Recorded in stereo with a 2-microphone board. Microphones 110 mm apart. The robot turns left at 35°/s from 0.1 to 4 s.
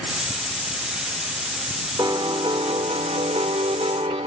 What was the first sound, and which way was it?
A piano, 40° right.